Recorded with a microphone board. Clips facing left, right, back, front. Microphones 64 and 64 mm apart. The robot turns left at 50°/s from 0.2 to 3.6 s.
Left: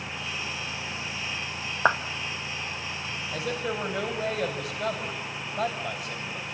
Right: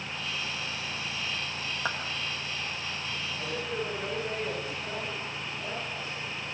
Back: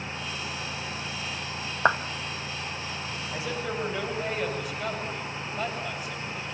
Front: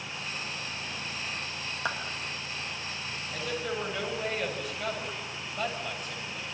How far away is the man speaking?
About 9 m.